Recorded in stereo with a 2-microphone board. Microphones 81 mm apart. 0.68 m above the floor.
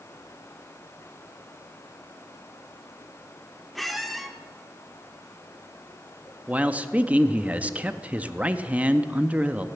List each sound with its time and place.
3.8 s a squeak: centre (ahead or behind), 0.9 m
6.5 s a man speaking: 15° right (ahead or behind), 0.5 m